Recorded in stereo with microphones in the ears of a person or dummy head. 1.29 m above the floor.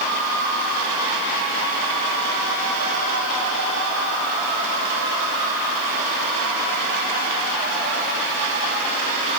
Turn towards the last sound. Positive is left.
No sound to turn to.